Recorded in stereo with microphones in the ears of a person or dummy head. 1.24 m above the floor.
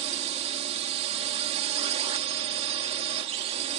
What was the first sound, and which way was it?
A drone, 40° right (ahead or behind).